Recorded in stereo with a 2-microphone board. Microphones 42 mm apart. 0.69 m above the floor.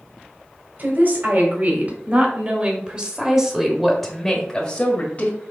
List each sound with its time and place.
0.8 s a woman speaking: 50° right (ahead or behind), 3 m; by 5.4 s 40° left (ahead or behind), 1.6 m